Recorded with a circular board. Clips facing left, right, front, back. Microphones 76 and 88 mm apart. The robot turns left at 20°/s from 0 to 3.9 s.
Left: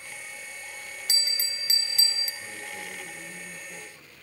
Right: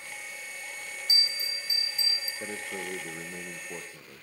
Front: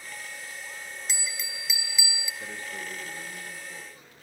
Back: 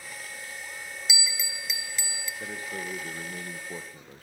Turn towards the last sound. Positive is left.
turn(degrees=-135)